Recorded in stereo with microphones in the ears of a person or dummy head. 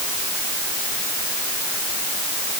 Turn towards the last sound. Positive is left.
No sound to turn to.